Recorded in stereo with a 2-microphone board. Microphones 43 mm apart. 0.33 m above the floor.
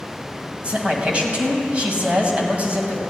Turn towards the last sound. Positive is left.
turn(degrees=-30)  # may be behind; listen again after turning